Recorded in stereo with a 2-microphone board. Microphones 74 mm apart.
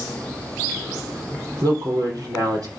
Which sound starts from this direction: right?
A woman speaking, at 1.6 s.